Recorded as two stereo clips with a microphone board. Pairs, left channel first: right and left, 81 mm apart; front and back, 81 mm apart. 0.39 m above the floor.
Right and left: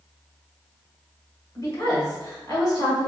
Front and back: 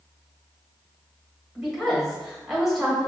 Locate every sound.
1.6 s a woman speaking: 95° right, 1.9 m